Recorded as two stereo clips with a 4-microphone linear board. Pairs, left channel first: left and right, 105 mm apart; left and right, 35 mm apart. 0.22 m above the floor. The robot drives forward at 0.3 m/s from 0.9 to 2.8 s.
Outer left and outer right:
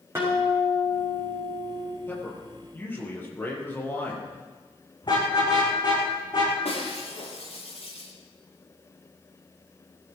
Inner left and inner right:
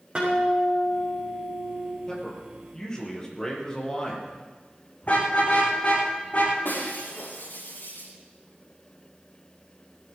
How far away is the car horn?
About 7.5 m.